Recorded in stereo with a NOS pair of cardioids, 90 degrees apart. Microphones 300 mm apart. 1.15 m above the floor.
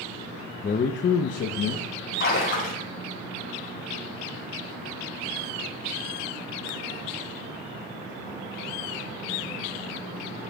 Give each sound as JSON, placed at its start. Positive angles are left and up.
{"t": 0.6, "sound": "a man speaking", "azimuth_deg": 30, "distance_m": 0.8}
{"t": 2.2, "sound": "a splash", "azimuth_deg": 40, "distance_m": 5.0}